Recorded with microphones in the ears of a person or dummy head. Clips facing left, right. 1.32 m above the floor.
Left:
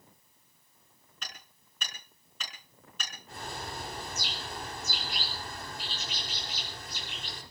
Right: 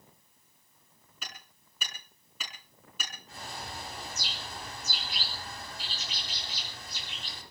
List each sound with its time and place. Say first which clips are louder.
1.2 s hammering: even; 10° right (ahead or behind), 5.5 m
3.3 s a bird: left 3 dB; 45° left (ahead or behind), 4 m